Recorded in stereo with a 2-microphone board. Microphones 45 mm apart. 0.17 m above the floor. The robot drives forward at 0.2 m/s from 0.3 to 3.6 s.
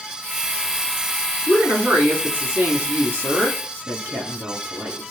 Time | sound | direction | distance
1.5 | a woman speaking | 45° right (ahead or behind) | 1.8 m